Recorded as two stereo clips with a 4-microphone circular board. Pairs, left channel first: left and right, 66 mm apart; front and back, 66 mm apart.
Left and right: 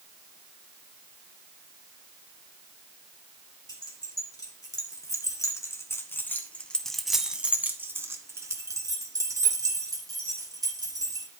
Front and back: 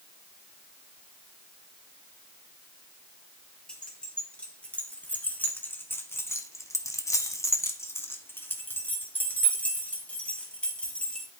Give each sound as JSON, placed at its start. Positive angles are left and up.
{"t": 3.7, "sound": "keys jangling", "azimuth_deg": 75, "distance_m": 3.0}